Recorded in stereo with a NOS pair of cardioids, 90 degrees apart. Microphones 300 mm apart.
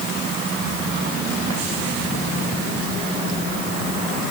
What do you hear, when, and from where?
Only background noise.